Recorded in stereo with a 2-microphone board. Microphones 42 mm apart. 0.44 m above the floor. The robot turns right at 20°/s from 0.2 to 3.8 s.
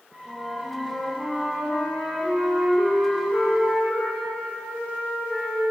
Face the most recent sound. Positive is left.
turn(degrees=45)